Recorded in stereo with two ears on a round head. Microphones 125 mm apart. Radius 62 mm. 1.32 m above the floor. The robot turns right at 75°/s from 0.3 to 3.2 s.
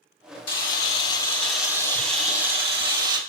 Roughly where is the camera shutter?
Left.